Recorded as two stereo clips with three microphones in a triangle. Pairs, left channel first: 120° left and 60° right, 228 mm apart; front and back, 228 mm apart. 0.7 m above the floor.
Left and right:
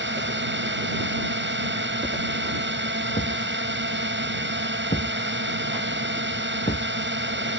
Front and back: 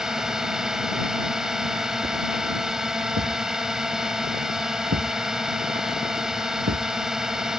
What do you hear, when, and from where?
0.0 s a drone: 95° right
3.1 s a thud: 175° left